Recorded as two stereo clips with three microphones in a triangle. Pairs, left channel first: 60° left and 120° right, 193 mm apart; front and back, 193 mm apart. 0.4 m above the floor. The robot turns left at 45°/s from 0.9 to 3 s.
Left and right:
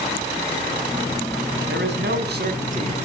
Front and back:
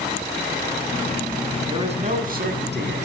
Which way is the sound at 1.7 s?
115° right.